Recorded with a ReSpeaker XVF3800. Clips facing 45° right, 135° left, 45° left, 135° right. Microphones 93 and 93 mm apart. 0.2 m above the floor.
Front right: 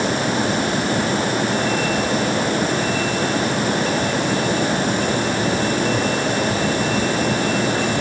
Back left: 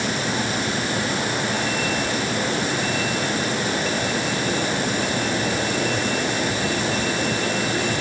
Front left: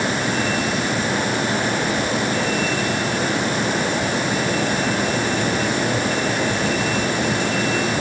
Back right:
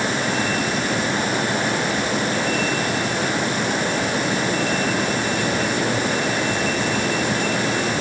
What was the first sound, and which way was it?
Only background noise.